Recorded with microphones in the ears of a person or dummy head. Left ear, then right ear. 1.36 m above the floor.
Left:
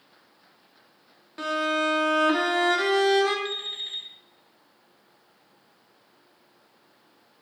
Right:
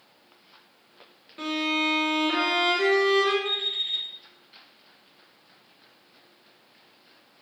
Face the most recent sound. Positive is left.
turn(degrees=25)  # may be behind; listen again after turning